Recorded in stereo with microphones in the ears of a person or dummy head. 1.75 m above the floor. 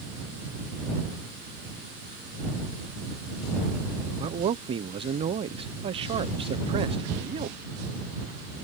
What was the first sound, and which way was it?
A man speaking, 35° right (ahead or behind).